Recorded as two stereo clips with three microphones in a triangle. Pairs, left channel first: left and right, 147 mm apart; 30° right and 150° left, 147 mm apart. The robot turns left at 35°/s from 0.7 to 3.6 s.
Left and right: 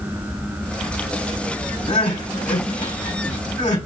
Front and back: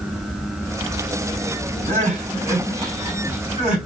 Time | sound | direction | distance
1.9 | crying | 130° left | 3 m